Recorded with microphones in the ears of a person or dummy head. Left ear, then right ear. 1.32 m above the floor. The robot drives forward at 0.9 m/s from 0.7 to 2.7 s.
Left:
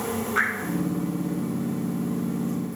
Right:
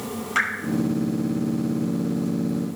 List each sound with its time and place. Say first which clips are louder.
0.3 s dripping: right 1 dB; 75° right (ahead or behind), 6.5 m